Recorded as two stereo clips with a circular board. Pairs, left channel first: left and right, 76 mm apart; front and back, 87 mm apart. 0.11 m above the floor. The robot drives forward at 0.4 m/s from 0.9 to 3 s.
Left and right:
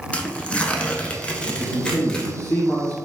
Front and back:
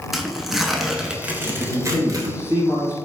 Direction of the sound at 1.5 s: 105° left.